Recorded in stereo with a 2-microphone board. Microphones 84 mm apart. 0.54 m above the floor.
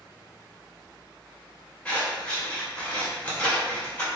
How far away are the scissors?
About 1.7 m.